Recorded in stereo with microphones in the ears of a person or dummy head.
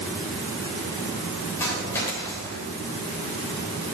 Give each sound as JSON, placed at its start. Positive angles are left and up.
{"t": 1.6, "sound": "a dropped coin", "side_deg": 15, "distance_m": 3.5}